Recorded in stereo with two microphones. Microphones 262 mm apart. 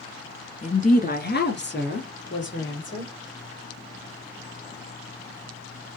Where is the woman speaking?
25° left (ahead or behind), 1.3 m; by 3.1 s 45° left (ahead or behind), 3.5 m.